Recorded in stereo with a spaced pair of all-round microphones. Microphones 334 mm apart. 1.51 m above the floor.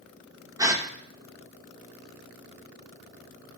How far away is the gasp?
About 1.2 m.